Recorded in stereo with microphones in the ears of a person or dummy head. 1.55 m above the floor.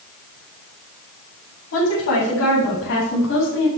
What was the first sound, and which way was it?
A woman speaking, 75° left (ahead or behind).